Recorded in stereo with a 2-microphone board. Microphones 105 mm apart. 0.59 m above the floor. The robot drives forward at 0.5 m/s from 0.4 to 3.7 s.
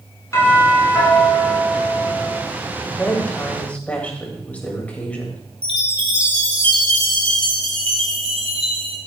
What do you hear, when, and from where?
0.3 s a doorbell: 30° left (ahead or behind), 6.5 m; by 2.4 s 35° left (ahead or behind), 6 m
2.9 s a woman speaking: 15° left (ahead or behind), 3 m
5.6 s a chime: 60° right (ahead or behind), 2.5 m